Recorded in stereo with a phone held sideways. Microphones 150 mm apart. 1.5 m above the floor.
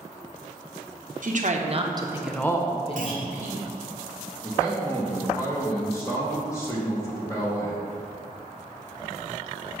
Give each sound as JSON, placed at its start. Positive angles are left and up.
{"t": 1.2, "sound": "a woman speaking", "side_deg": -60, "distance_m": 1.0}
{"t": 3.0, "sound": "a clunk", "side_deg": -65, "distance_m": 0.8}
{"t": 4.4, "sound": "a man speaking", "side_deg": 20, "distance_m": 1.2}